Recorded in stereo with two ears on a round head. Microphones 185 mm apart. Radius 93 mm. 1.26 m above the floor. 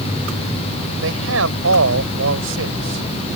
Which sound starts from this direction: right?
A man speaking, at 1.0 s.